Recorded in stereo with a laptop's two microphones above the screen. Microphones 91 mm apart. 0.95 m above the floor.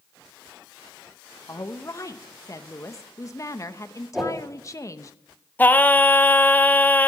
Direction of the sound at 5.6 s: 20° left (ahead or behind).